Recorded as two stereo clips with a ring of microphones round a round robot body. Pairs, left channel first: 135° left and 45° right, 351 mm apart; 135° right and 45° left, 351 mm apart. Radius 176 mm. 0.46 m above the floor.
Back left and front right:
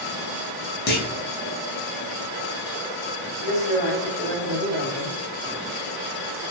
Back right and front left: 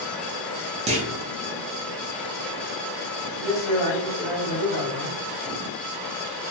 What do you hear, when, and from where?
0.9 s a clunk: 100° left, 0.6 m
3.4 s a man speaking: 125° right, 1.7 m